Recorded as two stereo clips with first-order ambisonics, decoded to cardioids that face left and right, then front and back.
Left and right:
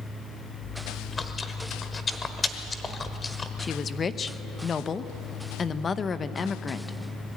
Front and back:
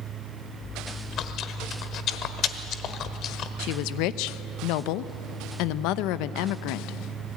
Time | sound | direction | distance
0.6 | chewing | 25° left | 1.2 m
3.6 | a woman speaking | 20° left | 0.8 m